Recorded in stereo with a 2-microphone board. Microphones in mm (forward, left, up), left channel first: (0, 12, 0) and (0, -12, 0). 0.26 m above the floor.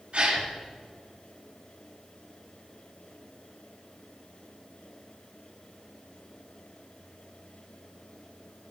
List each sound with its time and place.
0.1 s a gasp: 45° right (ahead or behind), 2 m